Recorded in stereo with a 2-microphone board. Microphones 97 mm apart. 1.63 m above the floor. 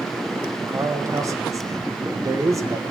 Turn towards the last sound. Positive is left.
turn(degrees=-35)  # may be behind; listen again after turning